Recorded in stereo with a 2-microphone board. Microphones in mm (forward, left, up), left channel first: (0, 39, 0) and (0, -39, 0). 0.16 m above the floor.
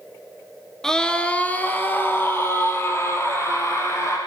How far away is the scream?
About 2.5 m.